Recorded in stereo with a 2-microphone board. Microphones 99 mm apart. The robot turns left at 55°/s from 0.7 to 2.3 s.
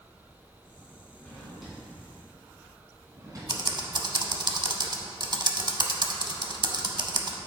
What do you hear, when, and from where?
1.2 s a drawer: 20° left (ahead or behind), 2.5 m; by 3.4 s 35° right (ahead or behind), 2.5 m
3.5 s typing on a keyboard: 50° right (ahead or behind), 0.6 m